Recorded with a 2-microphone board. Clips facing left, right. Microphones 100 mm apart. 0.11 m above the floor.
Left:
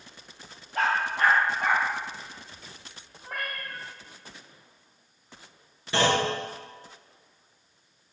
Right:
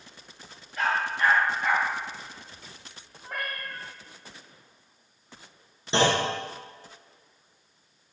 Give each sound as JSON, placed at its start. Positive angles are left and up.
{"t": 0.8, "sound": "a dog barking", "side_deg": 75, "distance_m": 2.5}
{"t": 3.2, "sound": "a cat meowing", "side_deg": 0, "distance_m": 1.8}
{"t": 5.9, "sound": "a clunk", "side_deg": -25, "distance_m": 2.0}